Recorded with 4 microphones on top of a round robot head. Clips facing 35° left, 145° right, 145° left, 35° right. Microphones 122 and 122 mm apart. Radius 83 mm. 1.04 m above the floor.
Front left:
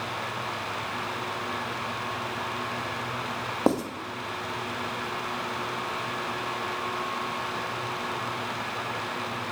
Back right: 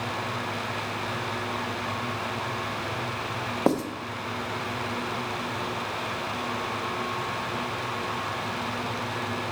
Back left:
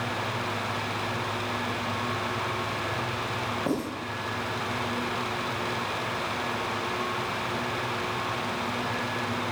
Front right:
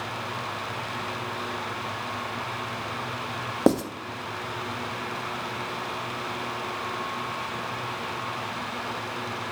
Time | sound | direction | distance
3.7 | writing | 50° right | 0.5 m